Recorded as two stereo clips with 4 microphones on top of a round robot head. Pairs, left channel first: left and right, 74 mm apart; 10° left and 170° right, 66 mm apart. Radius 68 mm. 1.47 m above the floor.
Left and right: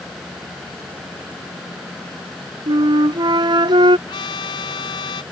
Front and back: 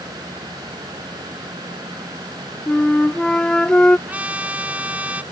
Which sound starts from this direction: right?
A flute, at 2.7 s.